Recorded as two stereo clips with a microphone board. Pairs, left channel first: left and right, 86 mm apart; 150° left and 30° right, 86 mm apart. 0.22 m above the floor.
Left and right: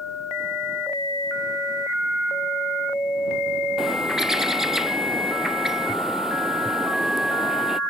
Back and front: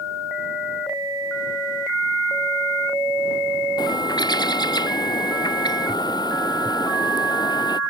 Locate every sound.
3.8 s a bird: 175° right